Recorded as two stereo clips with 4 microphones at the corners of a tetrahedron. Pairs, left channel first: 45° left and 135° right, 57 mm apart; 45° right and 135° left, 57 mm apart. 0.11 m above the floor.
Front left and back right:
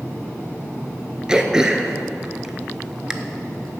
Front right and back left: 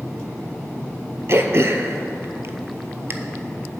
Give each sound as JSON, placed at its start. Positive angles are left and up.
{"t": 1.3, "sound": "throat clearing", "azimuth_deg": 150, "distance_m": 0.5}